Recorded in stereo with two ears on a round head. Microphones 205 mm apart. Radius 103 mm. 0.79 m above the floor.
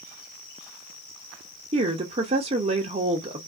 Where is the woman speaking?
25° right (ahead or behind), 0.6 m.